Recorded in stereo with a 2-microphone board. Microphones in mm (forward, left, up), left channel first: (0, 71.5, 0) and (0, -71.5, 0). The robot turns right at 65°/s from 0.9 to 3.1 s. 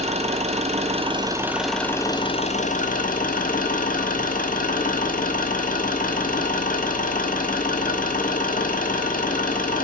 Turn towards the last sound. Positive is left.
turn(degrees=95)